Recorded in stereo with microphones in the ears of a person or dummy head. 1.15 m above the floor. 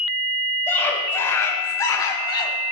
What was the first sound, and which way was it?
A scream, 10° left (ahead or behind).